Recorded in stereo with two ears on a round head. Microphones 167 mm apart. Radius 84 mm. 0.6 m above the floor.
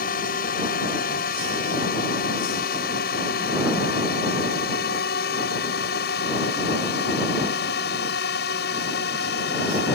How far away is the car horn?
I don't hear a car horn.